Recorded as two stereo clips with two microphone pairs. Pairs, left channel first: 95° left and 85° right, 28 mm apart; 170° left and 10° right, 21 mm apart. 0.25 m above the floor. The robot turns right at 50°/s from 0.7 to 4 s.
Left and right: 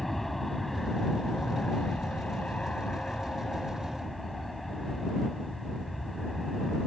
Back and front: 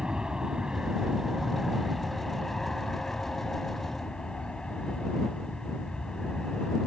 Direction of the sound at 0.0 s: 15° left.